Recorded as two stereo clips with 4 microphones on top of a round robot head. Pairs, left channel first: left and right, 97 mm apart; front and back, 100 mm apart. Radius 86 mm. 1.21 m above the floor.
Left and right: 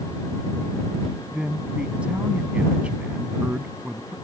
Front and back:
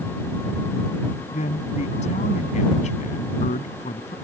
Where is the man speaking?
10° right.